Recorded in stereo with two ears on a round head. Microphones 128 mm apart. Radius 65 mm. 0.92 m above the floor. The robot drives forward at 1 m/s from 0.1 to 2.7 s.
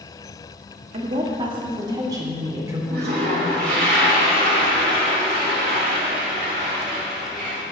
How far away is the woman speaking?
About 1.5 m.